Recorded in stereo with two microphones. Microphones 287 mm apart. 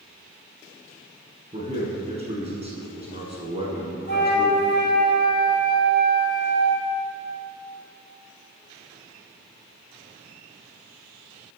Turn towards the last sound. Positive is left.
turn(degrees=40)  # may be behind; listen again after turning